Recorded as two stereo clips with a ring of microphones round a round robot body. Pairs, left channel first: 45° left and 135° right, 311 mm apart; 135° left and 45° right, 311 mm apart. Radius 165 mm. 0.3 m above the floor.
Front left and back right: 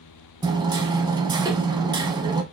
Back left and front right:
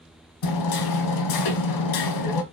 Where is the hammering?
150° left, 1.3 m.